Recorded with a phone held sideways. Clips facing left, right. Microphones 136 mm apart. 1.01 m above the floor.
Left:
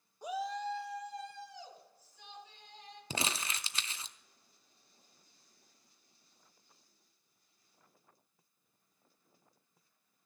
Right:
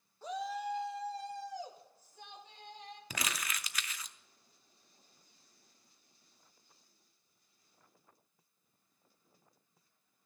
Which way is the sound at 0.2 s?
15° left (ahead or behind).